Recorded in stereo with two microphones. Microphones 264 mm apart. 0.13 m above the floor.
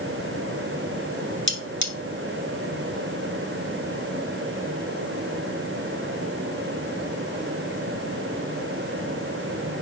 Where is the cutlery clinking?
45° left (ahead or behind), 1.4 m.